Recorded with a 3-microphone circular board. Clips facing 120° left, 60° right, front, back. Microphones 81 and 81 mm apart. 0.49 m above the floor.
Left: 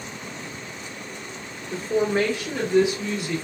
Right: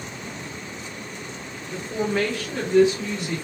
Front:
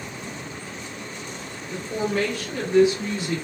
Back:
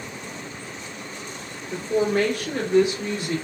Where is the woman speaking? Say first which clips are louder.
Left 3 dB, back 4 dB; 140° left, 0.9 m; by 3.4 s 150° right, 1.7 m.